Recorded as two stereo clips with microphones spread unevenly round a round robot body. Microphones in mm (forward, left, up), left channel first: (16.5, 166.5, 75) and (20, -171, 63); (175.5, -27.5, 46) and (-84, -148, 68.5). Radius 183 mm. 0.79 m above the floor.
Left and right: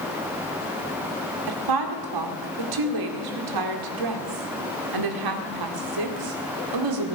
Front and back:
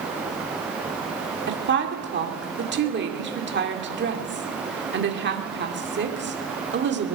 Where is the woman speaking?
100° right, 2.5 m.